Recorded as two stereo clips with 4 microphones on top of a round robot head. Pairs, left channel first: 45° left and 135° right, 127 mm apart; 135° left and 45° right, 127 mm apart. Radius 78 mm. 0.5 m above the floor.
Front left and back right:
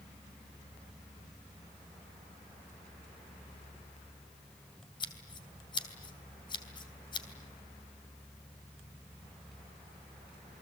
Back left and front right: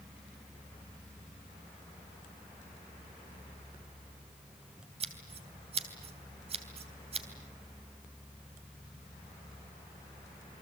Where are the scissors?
5° right, 3 m.